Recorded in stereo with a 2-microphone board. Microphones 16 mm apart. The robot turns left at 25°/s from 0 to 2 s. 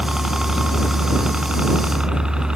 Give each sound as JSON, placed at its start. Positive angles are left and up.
{"t": 0.0, "sound": "a helicopter", "side_deg": -35}